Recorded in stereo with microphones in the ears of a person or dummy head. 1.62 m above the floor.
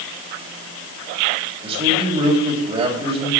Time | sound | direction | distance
1.6 | a man speaking | 25° right (ahead or behind) | 4 m